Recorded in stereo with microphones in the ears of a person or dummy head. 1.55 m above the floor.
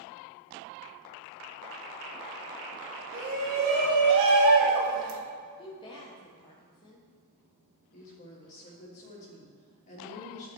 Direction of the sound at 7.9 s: 45° left (ahead or behind).